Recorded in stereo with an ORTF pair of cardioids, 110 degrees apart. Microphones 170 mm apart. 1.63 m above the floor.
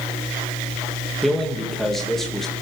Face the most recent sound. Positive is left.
turn(degrees=0)